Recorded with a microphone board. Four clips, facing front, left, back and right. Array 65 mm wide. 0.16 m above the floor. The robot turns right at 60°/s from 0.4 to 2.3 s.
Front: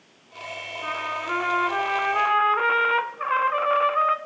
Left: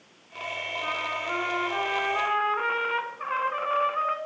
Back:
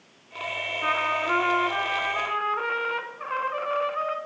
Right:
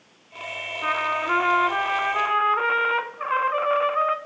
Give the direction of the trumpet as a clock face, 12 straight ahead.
4 o'clock.